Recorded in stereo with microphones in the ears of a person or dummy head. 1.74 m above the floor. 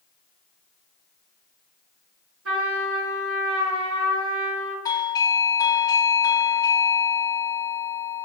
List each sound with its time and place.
2.5 s a trumpet: 75° right (ahead or behind), 6 m
4.8 s a doorbell: 15° left (ahead or behind), 0.7 m